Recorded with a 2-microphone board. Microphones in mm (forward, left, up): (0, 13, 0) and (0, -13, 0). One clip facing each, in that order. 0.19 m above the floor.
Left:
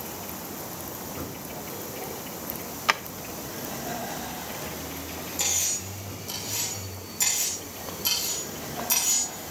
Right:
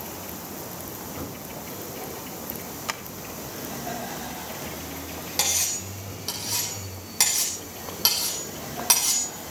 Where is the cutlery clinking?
85° right, 5.5 m.